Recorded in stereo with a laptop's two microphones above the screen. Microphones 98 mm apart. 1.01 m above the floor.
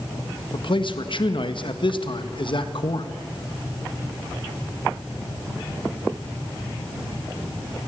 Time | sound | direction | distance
0.5 | a man speaking | 55° left (ahead or behind) | 1.6 m